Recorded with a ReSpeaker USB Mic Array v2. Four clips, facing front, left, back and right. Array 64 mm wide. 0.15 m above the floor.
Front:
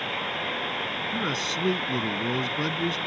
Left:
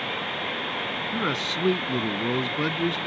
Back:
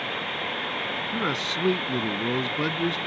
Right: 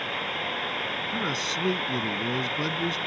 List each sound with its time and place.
1.1 s a man speaking: 125° left